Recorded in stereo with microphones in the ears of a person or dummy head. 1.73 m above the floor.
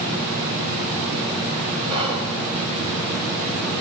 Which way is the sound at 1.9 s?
30° right (ahead or behind).